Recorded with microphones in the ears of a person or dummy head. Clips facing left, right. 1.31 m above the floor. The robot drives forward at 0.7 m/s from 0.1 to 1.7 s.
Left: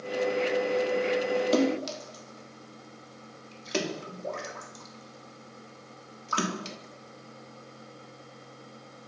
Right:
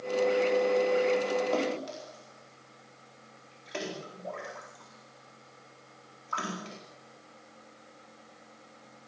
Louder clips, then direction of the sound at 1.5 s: Left 5 dB; 60° left (ahead or behind).